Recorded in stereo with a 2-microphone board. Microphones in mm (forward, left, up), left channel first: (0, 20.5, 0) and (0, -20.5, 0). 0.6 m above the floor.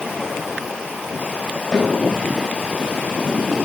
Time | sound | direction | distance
1.7 | a snare drum | 20° left (ahead or behind) | 4.5 m